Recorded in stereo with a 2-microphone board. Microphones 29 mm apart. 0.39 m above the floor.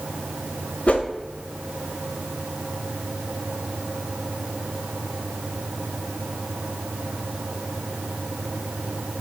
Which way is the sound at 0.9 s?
55° left (ahead or behind).